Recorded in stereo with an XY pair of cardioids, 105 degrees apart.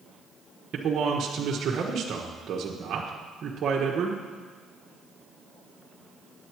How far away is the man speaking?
About 1.2 m.